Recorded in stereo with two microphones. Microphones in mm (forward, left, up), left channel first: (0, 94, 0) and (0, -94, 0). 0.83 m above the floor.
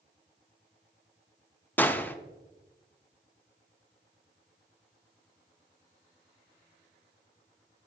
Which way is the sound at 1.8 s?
10° left (ahead or behind).